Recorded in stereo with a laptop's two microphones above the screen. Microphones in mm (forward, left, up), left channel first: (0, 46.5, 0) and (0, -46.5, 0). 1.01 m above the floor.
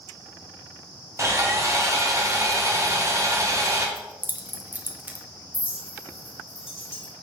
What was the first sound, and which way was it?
Sawing, 30° right (ahead or behind).